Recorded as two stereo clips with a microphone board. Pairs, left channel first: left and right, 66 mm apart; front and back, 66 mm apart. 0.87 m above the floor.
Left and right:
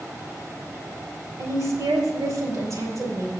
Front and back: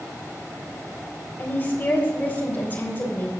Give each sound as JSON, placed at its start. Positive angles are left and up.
{"t": 1.4, "sound": "a woman speaking", "azimuth_deg": -60, "distance_m": 4.0}